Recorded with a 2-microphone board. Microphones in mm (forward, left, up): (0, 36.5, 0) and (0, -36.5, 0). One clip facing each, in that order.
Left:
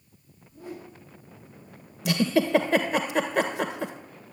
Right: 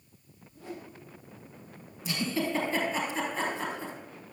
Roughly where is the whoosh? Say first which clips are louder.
Left 2 dB; centre.